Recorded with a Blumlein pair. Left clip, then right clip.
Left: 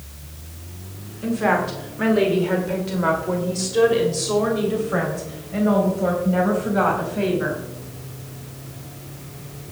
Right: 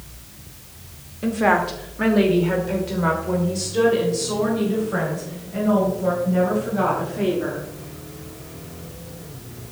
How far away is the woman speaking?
About 2 m.